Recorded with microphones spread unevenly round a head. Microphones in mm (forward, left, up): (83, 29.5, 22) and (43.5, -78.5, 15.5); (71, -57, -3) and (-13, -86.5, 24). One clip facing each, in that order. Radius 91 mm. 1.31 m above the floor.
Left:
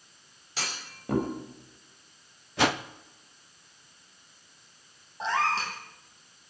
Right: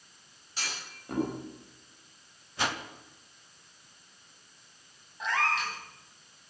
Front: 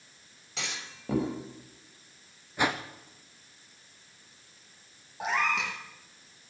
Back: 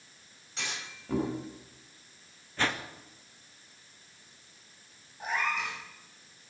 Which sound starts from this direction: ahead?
A cat meowing, at 5.2 s.